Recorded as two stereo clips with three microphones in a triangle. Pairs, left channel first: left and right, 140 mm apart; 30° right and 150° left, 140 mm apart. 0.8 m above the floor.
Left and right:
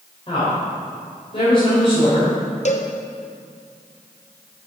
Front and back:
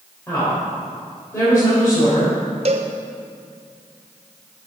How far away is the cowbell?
About 0.7 m.